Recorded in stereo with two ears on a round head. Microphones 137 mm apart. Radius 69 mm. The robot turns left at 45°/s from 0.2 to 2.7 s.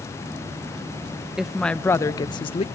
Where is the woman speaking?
175° right, 0.7 m; by 2.6 s 130° left, 0.7 m.